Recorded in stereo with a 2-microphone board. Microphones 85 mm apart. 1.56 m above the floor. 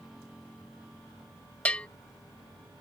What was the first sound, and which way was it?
A bell, 15° left (ahead or behind).